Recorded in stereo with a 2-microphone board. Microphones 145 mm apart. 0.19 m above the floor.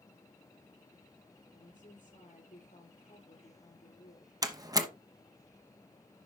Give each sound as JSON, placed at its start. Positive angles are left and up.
{"t": 1.5, "sound": "a woman speaking", "side_deg": 60, "distance_m": 4.0}
{"t": 4.4, "sound": "a door slam", "side_deg": -25, "distance_m": 1.0}